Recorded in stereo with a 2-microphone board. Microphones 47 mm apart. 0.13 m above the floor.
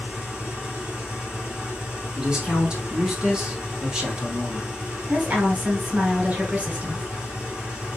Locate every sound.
0.0 s an engine running: 20° right (ahead or behind), 1.3 m
2.2 s a man speaking: 20° right (ahead or behind), 1.1 m
5.1 s a woman speaking: 30° right (ahead or behind), 1.6 m